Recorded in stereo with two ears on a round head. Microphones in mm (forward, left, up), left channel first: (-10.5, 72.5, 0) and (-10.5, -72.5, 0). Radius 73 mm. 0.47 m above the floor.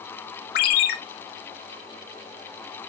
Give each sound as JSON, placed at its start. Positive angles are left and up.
{"t": 0.6, "sound": "a ringtone", "side_deg": 60, "distance_m": 1.3}